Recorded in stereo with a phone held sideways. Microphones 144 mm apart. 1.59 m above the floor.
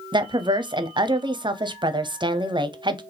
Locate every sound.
0.1 s a woman speaking: 30° right (ahead or behind), 0.6 m